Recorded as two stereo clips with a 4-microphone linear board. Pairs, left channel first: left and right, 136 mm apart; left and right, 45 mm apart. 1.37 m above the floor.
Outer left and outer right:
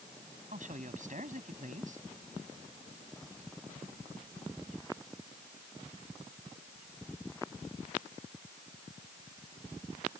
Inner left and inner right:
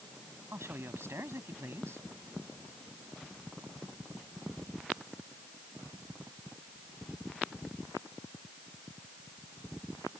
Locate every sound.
0.5 s a man speaking: 70° right (ahead or behind)